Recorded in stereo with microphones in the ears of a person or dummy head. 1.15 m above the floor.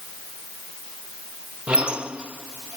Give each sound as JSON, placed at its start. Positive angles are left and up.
{"t": 1.7, "sound": "a squeak", "side_deg": -5}